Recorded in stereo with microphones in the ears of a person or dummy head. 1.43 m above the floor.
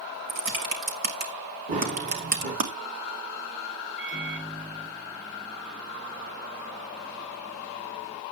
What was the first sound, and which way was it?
Typing on a keyboard, 45° right (ahead or behind).